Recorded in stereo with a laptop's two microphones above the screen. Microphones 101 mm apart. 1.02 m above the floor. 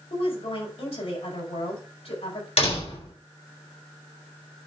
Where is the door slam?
80° left, 3.5 m.